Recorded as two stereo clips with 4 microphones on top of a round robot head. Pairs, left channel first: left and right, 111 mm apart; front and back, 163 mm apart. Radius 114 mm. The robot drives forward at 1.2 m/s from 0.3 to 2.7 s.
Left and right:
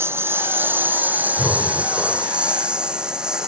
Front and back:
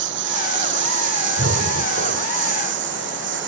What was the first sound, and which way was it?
A lawn mower, 160° right.